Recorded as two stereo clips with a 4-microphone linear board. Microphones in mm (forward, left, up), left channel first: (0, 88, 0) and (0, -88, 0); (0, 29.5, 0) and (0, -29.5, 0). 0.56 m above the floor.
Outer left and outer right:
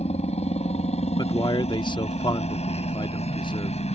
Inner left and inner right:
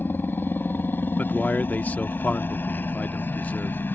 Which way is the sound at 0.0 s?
35° left (ahead or behind).